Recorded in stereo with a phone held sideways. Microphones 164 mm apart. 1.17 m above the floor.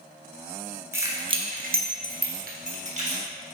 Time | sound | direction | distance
0.9 | keys jangling | 15° right (ahead or behind) | 1.1 m